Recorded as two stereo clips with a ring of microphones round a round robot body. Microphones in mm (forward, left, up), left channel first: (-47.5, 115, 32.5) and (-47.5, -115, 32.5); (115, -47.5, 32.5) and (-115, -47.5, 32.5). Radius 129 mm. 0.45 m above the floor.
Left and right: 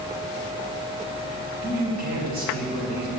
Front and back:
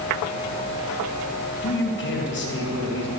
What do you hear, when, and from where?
1.6 s a man speaking: 35° right, 2.5 m